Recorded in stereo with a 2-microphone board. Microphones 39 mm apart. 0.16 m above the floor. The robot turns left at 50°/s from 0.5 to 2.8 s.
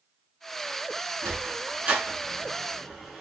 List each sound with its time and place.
1.2 s a sliding door: 50° right (ahead or behind), 0.9 m; by 3.2 s centre (ahead or behind), 0.9 m